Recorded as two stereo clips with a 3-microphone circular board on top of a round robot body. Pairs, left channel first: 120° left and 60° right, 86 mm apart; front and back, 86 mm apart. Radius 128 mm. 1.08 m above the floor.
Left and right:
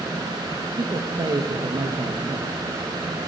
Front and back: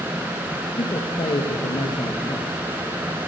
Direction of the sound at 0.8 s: 25° right.